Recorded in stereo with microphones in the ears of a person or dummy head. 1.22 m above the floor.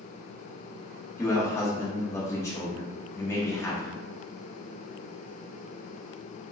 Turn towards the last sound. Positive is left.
turn(degrees=15)  # may be behind; listen again after turning